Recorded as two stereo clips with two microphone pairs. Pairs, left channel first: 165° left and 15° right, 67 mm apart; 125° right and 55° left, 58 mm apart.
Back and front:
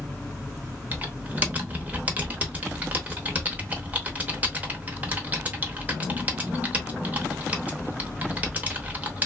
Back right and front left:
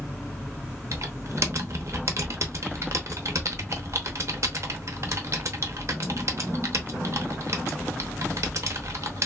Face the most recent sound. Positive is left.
turn(degrees=45)